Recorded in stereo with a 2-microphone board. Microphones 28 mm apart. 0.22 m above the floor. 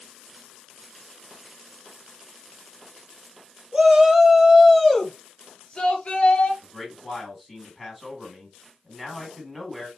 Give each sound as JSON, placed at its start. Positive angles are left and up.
{"t": 3.7, "sound": "a shout", "side_deg": -30, "distance_m": 1.2}
{"t": 6.6, "sound": "a man speaking", "side_deg": 0, "distance_m": 2.0}